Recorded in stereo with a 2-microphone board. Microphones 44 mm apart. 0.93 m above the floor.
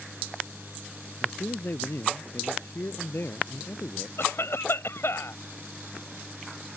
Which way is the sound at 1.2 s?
60° left (ahead or behind).